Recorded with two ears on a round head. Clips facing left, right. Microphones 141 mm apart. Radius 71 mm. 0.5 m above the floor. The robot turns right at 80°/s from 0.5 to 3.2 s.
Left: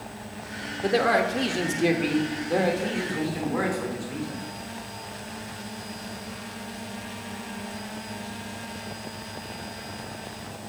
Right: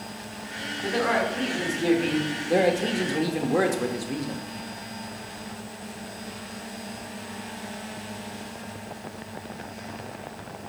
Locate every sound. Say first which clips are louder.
0.8 s a man speaking: left 3 dB; 70° left, 1.0 m; by 4.4 s 100° right, 1.0 m